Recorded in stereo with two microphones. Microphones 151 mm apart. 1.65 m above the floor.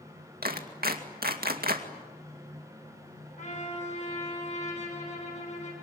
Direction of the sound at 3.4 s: 55° left (ahead or behind).